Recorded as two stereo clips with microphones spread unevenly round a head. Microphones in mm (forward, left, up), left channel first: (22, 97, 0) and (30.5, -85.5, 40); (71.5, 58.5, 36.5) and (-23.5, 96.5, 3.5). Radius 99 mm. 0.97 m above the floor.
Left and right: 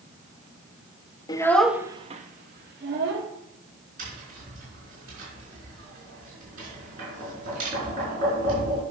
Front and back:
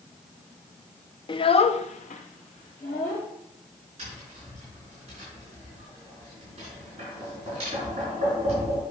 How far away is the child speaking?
About 0.8 m.